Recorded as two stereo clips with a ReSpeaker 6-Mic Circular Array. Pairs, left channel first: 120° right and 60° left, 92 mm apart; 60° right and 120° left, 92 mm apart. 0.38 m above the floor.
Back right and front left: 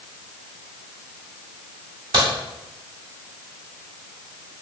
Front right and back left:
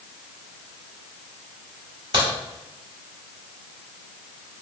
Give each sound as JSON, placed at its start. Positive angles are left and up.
{"t": 2.1, "sound": "a crack", "azimuth_deg": 95, "distance_m": 1.2}